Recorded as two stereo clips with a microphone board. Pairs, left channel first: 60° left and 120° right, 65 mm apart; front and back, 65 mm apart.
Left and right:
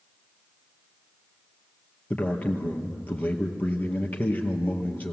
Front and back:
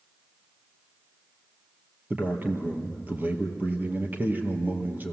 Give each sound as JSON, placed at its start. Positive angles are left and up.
{"t": 2.1, "sound": "a man speaking", "azimuth_deg": 125, "distance_m": 2.5}